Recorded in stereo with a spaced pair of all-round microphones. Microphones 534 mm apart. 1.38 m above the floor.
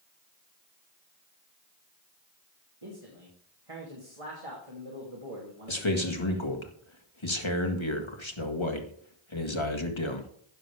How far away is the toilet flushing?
No toilet flushing in this recording.